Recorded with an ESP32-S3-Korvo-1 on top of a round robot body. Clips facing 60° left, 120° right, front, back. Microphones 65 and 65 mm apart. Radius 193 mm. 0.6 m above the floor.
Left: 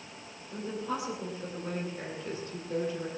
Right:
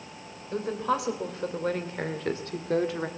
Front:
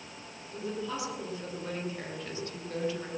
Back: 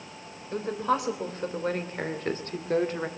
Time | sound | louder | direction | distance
0.5 | a woman speaking | right 7 dB, back 9 dB | 145° right | 3 m